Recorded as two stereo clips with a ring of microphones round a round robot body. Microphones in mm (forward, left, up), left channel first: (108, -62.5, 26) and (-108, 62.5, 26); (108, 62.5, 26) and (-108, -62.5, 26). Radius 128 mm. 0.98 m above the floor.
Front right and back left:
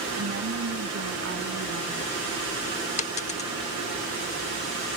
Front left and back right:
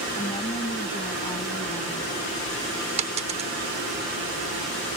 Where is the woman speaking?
105° left; by 2.1 s 100° left.